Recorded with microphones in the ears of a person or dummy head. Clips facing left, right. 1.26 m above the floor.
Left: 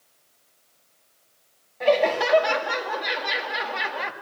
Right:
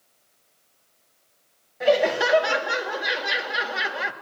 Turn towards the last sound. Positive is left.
turn(degrees=-5)  # may be behind; listen again after turning